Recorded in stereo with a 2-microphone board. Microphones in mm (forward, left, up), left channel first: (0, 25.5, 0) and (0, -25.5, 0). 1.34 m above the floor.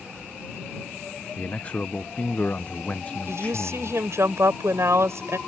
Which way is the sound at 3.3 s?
70° right (ahead or behind).